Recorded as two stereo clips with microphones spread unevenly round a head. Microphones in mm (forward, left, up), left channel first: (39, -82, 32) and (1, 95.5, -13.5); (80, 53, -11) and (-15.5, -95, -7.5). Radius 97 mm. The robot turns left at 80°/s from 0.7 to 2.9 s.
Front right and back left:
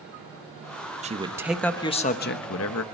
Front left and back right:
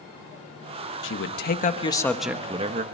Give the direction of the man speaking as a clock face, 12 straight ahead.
10 o'clock.